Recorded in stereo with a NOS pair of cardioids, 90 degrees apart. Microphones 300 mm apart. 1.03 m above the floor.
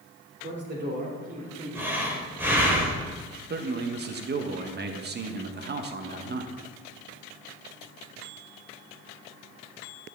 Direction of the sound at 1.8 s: 5° right.